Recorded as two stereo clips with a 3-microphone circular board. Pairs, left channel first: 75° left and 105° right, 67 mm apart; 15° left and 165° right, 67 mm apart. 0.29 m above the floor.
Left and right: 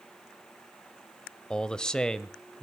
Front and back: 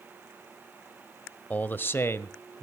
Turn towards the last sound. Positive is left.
turn(degrees=-5)